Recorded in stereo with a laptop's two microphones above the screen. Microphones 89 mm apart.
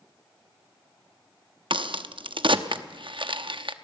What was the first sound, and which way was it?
A crack, 70° right (ahead or behind).